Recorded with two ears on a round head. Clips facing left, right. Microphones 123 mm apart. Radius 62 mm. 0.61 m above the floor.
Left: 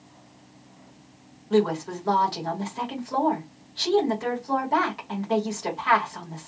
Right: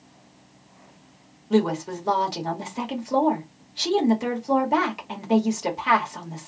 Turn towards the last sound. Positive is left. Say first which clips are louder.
# even
turn(degrees=-20)  # may be behind; listen again after turning